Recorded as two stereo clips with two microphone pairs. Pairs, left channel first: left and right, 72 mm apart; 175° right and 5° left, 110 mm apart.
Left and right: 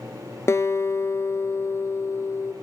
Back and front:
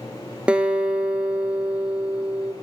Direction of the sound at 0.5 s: 80° left.